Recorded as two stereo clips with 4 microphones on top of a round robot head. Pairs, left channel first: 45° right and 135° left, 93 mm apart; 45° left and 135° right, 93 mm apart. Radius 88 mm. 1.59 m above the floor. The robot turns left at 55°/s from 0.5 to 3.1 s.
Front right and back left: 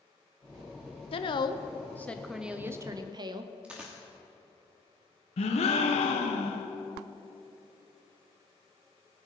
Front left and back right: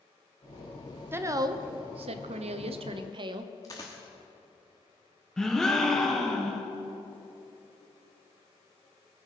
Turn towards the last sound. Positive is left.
turn(degrees=-40)